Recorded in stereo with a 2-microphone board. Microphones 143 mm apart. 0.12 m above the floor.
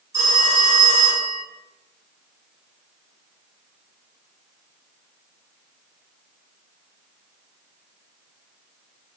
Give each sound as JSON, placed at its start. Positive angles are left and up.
{"t": 0.1, "sound": "a phone ringing", "side_deg": -25, "distance_m": 1.6}